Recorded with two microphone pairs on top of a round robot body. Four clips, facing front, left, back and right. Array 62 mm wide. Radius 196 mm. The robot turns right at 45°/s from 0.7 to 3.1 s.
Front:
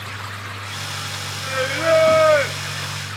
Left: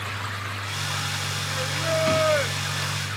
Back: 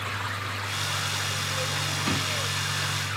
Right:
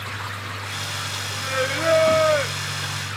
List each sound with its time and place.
1.4 s singing: 45° right; by 2.9 s 20° left